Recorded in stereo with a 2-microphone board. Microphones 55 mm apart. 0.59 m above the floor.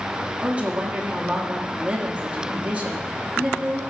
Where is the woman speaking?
25° right (ahead or behind), 1.2 m.